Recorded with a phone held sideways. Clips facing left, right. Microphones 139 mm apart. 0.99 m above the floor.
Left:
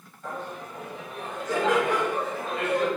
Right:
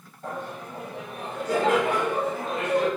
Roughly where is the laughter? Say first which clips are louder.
Right 1 dB; right.